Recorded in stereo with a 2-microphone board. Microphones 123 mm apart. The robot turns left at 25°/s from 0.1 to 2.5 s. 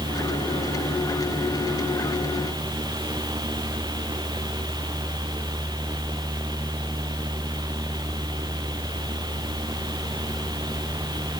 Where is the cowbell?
I don't hear a cowbell.